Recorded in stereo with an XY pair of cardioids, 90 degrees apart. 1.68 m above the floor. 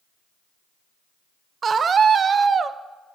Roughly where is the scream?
Ahead right.